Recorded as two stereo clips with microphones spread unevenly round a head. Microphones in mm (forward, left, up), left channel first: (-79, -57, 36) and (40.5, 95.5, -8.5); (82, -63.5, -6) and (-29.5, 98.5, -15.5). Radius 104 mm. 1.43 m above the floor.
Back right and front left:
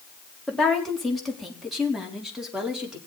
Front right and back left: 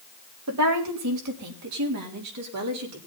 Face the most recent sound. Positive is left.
turn(degrees=140)